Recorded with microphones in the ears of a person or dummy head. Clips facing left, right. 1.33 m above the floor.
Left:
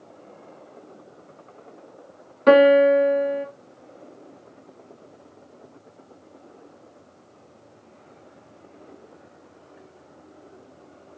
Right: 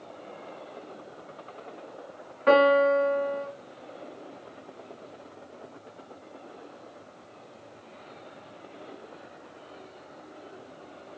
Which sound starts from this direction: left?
A piano, at 2.5 s.